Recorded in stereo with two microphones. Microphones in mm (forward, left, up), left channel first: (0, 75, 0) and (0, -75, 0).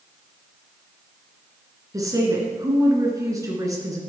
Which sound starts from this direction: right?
A woman speaking, at 1.9 s.